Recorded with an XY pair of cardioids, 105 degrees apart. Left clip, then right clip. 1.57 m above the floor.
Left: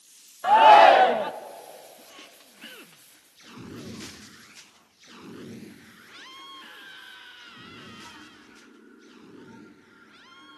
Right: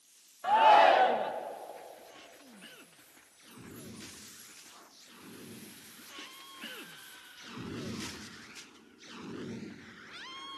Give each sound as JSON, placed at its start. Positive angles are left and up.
{"t": 0.4, "sound": "a shout", "azimuth_deg": 50, "distance_m": 0.6}